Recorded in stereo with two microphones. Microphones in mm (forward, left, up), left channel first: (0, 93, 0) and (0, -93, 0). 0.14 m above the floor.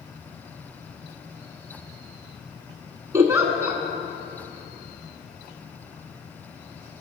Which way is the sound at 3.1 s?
15° right (ahead or behind).